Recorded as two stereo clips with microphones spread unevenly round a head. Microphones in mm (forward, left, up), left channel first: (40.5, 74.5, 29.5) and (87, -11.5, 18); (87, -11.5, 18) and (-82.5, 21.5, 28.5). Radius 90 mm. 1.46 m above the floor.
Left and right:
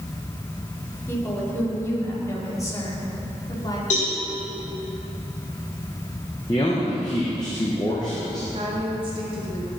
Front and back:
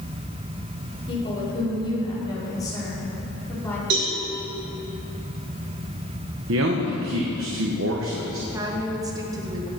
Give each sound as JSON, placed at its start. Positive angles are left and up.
{"t": 1.1, "sound": "a woman speaking", "azimuth_deg": 50, "distance_m": 5.0}
{"t": 3.9, "sound": "a cowbell", "azimuth_deg": 140, "distance_m": 4.5}
{"t": 6.5, "sound": "a man speaking", "azimuth_deg": -170, "distance_m": 1.4}
{"t": 8.5, "sound": "a woman speaking", "azimuth_deg": -120, "distance_m": 1.7}